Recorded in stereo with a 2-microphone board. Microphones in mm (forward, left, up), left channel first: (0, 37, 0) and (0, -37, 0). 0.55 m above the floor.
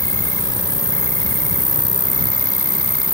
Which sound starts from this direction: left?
An insect, at 0.0 s.